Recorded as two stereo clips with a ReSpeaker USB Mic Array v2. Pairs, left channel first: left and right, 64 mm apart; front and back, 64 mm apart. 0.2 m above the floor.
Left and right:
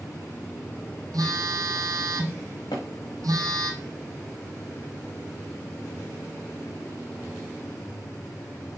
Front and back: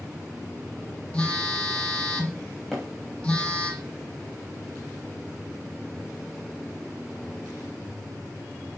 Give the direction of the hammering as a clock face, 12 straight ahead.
9 o'clock.